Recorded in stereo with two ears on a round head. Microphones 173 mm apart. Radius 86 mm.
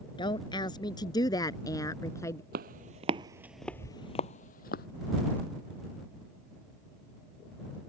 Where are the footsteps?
50° right (ahead or behind); by 4.9 s 50° left (ahead or behind).